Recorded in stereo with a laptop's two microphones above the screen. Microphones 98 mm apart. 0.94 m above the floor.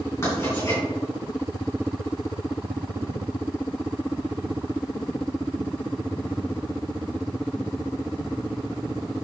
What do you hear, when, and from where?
0.2 s writing: 25° left (ahead or behind), 3.5 m